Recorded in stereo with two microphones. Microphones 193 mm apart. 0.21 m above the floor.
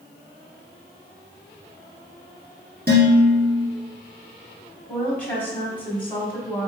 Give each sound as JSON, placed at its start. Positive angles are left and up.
{"t": 2.9, "sound": "dishes clattering", "side_deg": -55, "distance_m": 1.7}
{"t": 4.9, "sound": "a woman speaking", "side_deg": 10, "distance_m": 1.4}